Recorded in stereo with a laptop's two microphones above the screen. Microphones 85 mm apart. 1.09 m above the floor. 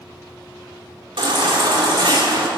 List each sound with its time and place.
1.2 s a baby crying: 70° right (ahead or behind), 2.5 m